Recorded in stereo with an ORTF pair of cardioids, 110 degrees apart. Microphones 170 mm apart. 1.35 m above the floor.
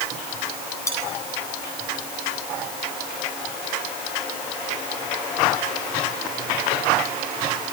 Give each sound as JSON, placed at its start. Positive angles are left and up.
{"t": 0.9, "sound": "cutlery clinking", "azimuth_deg": 20, "distance_m": 8.5}